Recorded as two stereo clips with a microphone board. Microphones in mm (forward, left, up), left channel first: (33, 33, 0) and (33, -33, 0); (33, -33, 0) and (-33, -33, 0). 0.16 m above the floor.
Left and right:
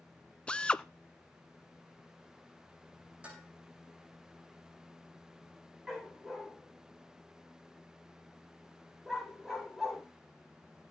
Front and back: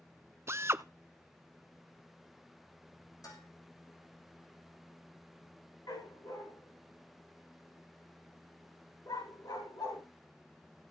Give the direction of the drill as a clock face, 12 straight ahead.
7 o'clock.